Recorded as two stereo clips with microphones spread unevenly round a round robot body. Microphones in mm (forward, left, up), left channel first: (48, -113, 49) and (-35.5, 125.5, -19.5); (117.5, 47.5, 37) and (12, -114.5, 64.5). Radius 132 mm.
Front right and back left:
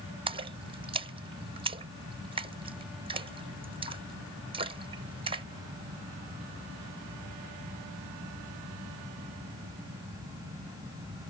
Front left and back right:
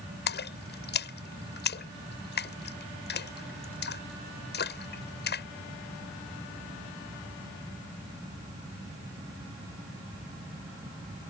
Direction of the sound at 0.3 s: 50° left.